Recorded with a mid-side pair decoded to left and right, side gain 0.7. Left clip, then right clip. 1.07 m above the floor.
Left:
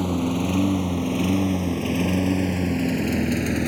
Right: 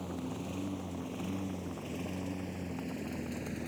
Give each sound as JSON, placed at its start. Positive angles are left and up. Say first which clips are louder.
{"t": 0.0, "sound": "a lawn mower", "louder": "left 16 dB", "azimuth_deg": 55}